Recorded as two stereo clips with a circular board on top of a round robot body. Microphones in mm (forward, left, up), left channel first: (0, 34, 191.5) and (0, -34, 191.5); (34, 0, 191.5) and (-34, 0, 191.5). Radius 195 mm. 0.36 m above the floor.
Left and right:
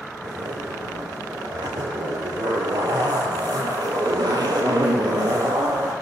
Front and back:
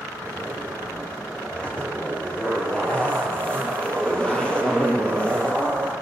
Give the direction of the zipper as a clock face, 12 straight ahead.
3 o'clock.